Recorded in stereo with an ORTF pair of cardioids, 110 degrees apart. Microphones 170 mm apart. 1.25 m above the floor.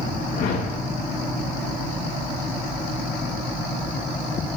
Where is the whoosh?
50° left, 1.4 m.